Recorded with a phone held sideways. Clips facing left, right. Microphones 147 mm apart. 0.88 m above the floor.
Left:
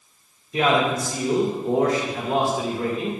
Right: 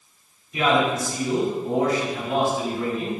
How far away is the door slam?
No door slam in this recording.